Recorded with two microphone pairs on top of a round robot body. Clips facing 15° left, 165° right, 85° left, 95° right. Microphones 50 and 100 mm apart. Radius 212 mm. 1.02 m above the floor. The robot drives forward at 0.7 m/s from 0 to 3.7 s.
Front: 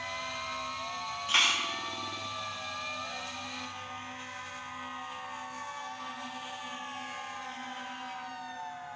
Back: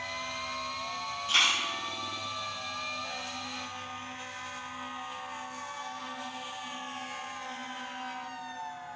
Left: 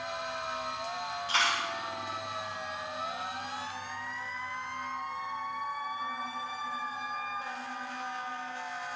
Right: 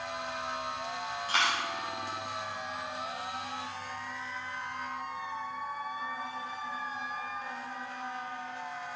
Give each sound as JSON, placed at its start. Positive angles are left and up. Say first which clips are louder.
{"t": 1.3, "sound": "a dropped coin", "louder": "back 1 dB, even", "azimuth_deg": -40, "distance_m": 1.0}